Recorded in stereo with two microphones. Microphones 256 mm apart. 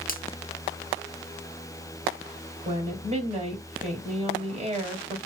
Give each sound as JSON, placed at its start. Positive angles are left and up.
{"t": 0.1, "sound": "a finger snap", "side_deg": 35, "distance_m": 0.7}
{"t": 2.6, "sound": "a woman speaking", "side_deg": -25, "distance_m": 2.0}